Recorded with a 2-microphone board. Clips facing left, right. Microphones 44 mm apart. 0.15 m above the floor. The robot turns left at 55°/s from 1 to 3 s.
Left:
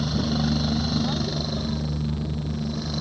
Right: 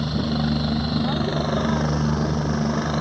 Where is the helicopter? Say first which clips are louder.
Right 1 dB; 10° right (ahead or behind); by 3.0 s 45° right (ahead or behind).